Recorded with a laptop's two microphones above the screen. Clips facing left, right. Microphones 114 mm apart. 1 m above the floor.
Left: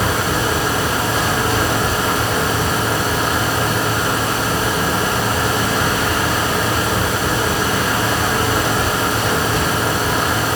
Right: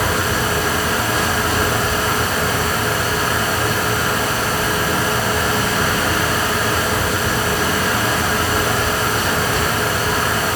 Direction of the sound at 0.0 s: 25° left (ahead or behind).